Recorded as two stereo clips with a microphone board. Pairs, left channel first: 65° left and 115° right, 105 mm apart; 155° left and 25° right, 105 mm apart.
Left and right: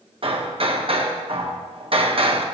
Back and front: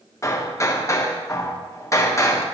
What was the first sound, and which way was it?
Hammering, 140° right.